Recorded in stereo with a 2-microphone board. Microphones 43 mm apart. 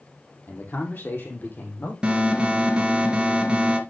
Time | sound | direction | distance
0.5 | a man speaking | 50° left (ahead or behind) | 3.5 m
2.0 | an alarm | 20° right (ahead or behind) | 2 m